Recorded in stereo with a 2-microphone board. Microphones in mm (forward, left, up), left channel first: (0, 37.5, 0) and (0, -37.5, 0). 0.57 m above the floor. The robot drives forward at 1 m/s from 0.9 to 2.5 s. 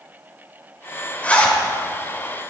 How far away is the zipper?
About 2 m.